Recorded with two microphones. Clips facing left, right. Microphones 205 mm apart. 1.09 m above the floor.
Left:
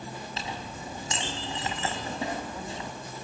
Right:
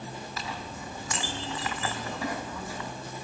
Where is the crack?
I don't hear a crack.